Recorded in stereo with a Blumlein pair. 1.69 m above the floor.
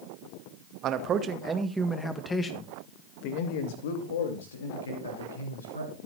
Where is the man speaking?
35° right, 2 m; by 6.0 s 75° left, 4 m.